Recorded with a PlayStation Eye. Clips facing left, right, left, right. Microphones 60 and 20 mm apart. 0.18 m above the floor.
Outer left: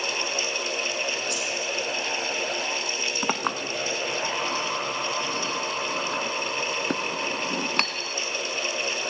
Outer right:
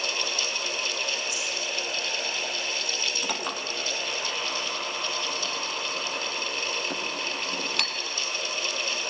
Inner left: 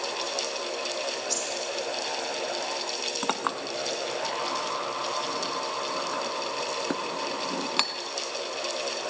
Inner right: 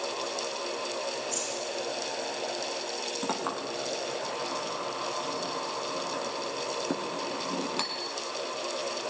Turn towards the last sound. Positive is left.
turn(degrees=45)  # may be behind; listen again after turning